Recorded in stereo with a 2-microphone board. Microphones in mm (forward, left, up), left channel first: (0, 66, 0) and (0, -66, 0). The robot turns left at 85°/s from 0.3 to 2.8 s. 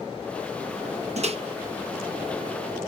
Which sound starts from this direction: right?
A microwave, at 1.2 s.